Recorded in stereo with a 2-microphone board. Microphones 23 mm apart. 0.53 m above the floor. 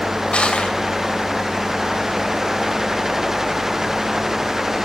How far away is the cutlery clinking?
I don't hear cutlery clinking.